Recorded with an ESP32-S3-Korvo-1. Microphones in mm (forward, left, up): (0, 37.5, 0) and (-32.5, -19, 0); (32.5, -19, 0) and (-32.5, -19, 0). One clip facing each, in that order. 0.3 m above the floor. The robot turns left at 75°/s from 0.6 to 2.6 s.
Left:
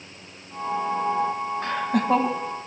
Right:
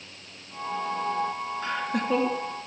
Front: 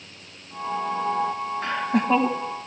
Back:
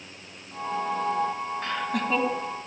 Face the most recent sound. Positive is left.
turn(degrees=10)